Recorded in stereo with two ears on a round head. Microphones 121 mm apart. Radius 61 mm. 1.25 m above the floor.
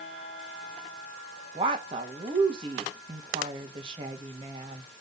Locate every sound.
1.6 s a woman speaking: 35° right (ahead or behind), 1.5 m